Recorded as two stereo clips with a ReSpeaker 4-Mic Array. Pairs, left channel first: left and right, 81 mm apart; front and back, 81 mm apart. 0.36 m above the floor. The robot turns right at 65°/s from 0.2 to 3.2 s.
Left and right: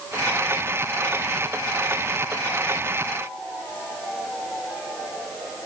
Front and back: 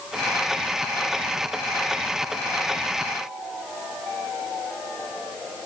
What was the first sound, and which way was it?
Only background noise.